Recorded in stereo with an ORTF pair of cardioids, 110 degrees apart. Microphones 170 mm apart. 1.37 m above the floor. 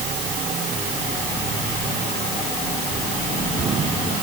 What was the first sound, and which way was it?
Only background noise.